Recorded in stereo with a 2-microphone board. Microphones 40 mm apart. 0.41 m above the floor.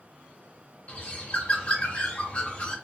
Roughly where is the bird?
Left.